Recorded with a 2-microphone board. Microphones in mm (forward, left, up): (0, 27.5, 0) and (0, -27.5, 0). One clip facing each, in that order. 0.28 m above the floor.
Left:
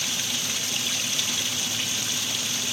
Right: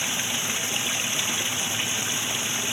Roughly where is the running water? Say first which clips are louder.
Right 2 dB; right.